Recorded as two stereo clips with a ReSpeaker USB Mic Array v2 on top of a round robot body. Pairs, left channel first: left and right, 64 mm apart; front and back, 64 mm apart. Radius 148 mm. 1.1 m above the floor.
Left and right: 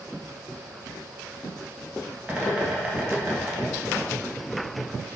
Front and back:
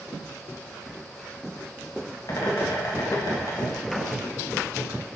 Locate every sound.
2.3 s a bird: 20° right, 2.0 m